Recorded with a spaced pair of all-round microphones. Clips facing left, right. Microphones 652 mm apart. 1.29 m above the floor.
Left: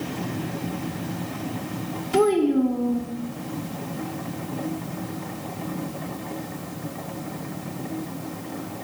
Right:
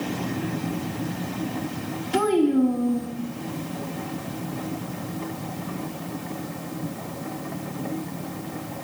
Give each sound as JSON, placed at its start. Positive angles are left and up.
{"t": 2.1, "sound": "a child speaking", "side_deg": -5, "distance_m": 0.7}